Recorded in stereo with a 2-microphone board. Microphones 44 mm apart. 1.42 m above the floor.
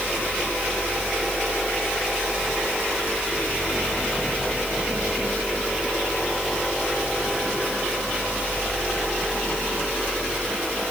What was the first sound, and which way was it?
Only background noise.